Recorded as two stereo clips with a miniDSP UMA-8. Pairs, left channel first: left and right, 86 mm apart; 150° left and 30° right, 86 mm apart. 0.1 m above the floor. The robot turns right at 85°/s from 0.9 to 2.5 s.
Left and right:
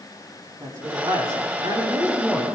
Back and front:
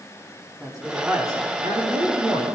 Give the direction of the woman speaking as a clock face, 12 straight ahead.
4 o'clock.